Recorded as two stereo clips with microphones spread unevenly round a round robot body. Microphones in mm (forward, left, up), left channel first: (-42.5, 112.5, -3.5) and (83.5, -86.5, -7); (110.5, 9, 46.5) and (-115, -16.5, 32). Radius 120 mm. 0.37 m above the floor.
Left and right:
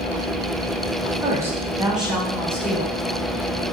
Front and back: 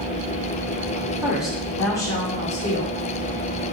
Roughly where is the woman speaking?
Behind right.